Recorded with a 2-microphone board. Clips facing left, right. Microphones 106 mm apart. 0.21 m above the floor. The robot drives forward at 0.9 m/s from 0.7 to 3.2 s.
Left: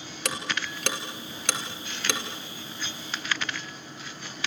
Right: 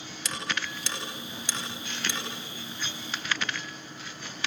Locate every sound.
0.2 s ticking: 60° left (ahead or behind), 4 m; by 2.2 s 70° left (ahead or behind), 4 m